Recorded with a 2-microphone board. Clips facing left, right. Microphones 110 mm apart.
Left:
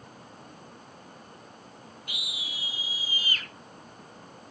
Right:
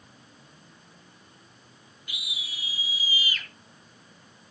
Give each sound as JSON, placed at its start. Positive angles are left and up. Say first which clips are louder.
{"t": 2.1, "sound": "a scream", "louder": "right 1 dB", "side_deg": 60, "distance_m": 4.5}